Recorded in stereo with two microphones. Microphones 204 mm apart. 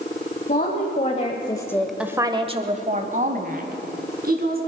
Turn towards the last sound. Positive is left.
turn(degrees=-50)  # may be behind; listen again after turning